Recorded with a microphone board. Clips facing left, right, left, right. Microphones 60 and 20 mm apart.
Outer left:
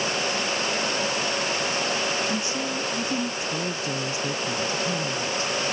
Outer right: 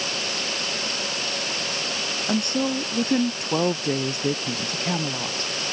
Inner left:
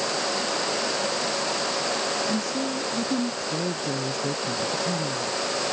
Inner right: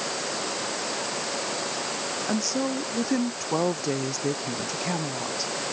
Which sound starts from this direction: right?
A woman speaking, at 2.3 s.